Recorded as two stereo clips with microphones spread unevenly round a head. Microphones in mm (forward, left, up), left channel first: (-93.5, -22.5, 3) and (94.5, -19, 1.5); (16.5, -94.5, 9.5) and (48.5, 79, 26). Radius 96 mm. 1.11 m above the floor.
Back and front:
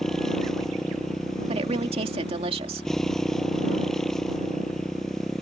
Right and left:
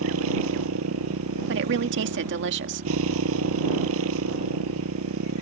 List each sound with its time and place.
0.0 s a motorcycle: 95° left
1.5 s a woman speaking: 65° left